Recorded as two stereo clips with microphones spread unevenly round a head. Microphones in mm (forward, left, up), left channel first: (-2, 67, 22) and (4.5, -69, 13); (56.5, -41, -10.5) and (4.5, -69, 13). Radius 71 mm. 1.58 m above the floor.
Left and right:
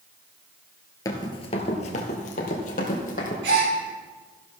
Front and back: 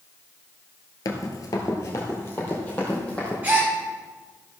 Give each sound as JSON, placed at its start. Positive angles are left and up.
{"t": 1.1, "sound": "running footsteps", "azimuth_deg": 50, "distance_m": 1.9}
{"t": 3.4, "sound": "a gasp", "azimuth_deg": -90, "distance_m": 6.5}